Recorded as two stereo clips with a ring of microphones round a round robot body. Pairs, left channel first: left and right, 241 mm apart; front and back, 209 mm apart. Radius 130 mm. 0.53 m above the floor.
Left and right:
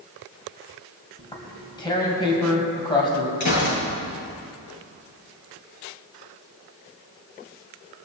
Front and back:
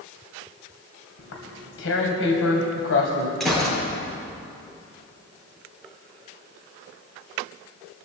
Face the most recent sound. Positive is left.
turn(degrees=90)